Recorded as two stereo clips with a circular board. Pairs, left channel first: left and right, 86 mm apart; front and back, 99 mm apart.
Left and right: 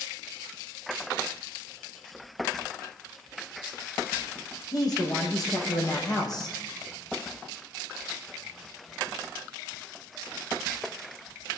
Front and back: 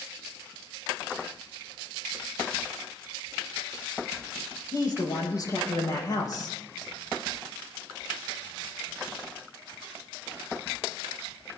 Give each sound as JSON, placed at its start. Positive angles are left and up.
{"t": 4.7, "sound": "a man speaking", "azimuth_deg": 50, "distance_m": 7.0}